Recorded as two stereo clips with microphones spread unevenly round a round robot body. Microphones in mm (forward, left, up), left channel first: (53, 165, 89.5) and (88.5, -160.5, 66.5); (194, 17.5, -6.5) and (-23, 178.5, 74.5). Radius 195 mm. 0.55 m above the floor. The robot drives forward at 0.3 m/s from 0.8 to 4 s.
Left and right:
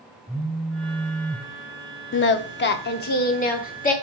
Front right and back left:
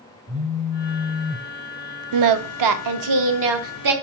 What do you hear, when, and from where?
0.3 s a phone buzzing: 175° right, 0.9 m; by 1.5 s straight behind, 1.1 m
2.1 s singing: 145° left, 0.6 m; by 3.9 s 165° left, 1.1 m